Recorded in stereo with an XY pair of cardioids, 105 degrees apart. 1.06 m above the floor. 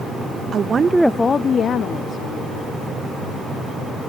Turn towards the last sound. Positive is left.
turn(degrees=75)